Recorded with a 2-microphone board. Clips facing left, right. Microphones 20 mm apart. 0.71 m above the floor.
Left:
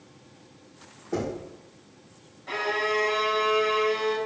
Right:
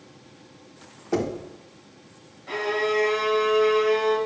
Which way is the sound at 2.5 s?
Centre (ahead or behind).